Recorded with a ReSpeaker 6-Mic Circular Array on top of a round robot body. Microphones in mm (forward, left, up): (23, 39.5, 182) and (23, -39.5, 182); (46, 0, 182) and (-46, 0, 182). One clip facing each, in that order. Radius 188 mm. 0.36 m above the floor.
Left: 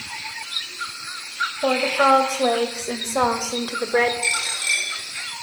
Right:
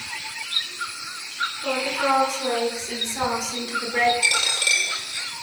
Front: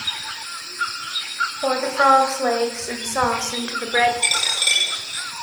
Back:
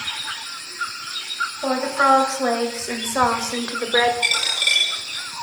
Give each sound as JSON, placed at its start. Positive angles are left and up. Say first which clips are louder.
{"t": 1.6, "sound": "a woman speaking", "louder": "left 6 dB, front 1 dB", "azimuth_deg": 80, "distance_m": 3.0}
{"t": 4.2, "sound": "a dropped coin", "louder": "right 2 dB, even", "azimuth_deg": -65, "distance_m": 5.0}